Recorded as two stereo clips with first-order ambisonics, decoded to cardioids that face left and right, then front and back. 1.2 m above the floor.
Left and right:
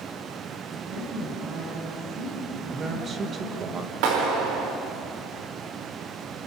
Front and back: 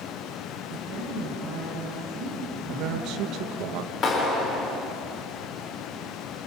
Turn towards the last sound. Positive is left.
turn(degrees=-60)